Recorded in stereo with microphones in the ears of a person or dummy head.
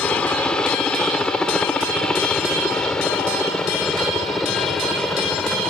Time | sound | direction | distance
0.0 | a helicopter | 10° left (ahead or behind) | ?